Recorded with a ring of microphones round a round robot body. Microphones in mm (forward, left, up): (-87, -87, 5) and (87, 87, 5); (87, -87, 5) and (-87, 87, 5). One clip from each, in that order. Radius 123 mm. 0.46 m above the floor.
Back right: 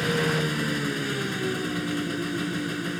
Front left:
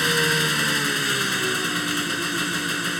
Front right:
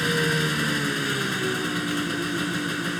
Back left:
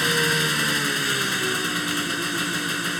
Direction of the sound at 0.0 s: 80° left.